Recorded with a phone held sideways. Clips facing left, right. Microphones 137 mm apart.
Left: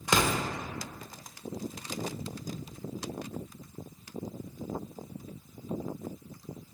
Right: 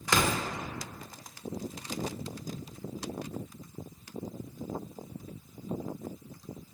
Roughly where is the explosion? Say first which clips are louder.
Left 1 dB; centre.